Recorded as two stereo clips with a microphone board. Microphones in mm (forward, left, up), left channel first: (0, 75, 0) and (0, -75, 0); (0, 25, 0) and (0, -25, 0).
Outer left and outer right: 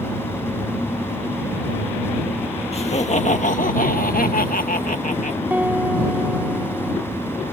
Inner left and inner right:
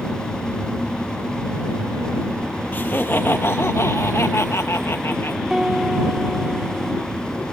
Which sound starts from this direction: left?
Laughter, at 2.7 s.